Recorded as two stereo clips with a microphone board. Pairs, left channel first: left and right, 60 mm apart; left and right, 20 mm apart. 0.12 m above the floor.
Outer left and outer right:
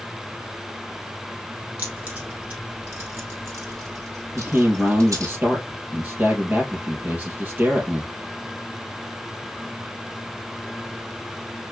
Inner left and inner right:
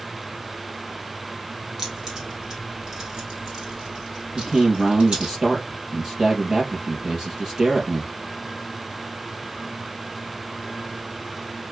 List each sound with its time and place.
1.8 s keys jangling: 30° right (ahead or behind), 2.5 m; by 5.3 s 70° right (ahead or behind), 2 m
4.3 s a man speaking: 30° right (ahead or behind), 3 m